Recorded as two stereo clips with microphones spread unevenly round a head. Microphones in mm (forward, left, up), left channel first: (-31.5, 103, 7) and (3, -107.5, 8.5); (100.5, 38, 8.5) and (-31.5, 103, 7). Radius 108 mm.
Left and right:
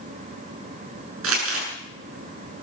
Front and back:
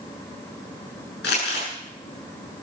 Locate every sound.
1.2 s crumpling: 55° right, 7.5 m